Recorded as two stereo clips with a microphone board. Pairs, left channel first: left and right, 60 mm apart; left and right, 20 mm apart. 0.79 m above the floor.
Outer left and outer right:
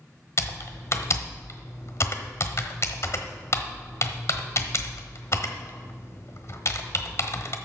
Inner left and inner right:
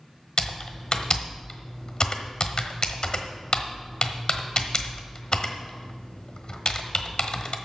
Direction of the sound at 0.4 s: 50° left (ahead or behind).